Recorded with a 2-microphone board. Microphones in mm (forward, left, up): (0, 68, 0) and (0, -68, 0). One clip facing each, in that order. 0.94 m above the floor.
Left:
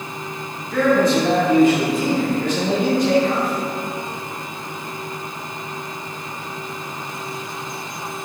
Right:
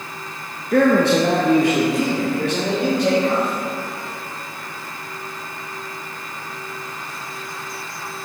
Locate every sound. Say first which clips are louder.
0.7 s a man speaking: right 2 dB; 55° right (ahead or behind), 1.0 m; by 3.6 s 65° right (ahead or behind), 5 m